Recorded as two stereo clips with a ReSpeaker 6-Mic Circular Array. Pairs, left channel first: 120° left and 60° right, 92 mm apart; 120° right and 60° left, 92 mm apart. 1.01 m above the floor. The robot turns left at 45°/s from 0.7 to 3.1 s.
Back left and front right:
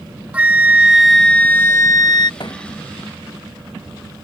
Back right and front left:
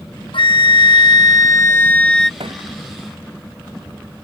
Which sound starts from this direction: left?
A thud, at 2.4 s.